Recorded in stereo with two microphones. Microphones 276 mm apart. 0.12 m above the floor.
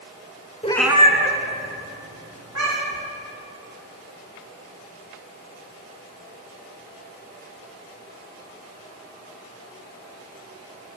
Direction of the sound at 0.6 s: 25° left (ahead or behind).